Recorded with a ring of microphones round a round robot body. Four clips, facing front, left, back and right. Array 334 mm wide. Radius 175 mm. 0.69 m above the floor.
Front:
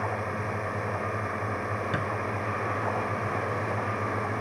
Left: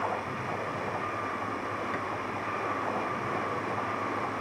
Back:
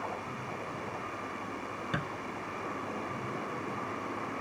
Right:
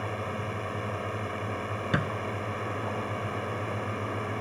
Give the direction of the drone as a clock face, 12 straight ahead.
1 o'clock.